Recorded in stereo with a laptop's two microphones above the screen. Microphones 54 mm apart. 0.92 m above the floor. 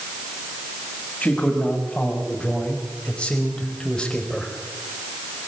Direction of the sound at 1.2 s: 25° left (ahead or behind).